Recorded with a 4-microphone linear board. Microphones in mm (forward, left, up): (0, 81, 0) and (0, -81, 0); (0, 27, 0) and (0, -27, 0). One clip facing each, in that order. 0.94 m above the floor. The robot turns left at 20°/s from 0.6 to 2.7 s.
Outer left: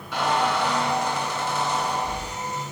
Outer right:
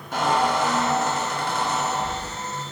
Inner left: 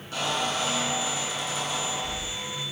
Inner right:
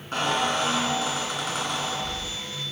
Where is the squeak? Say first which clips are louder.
Outer right 2 dB, inner right 4 dB; 55° right, 1.5 m; by 2.5 s 95° right, 1.5 m.